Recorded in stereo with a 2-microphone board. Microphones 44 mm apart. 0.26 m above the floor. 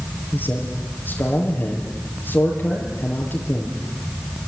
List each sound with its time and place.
0.3 s a man speaking: 45° left (ahead or behind), 6 m